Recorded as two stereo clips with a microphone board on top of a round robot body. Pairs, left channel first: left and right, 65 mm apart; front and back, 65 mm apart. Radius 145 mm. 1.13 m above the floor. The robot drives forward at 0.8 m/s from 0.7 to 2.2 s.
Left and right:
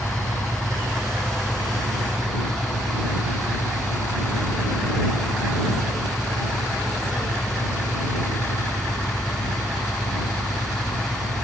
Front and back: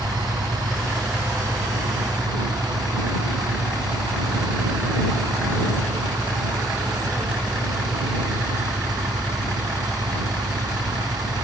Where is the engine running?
175° left.